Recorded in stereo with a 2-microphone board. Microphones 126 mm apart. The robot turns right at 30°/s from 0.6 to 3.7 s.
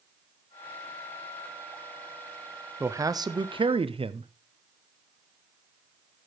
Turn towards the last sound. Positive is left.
turn(degrees=-45)  # may be behind; listen again after turning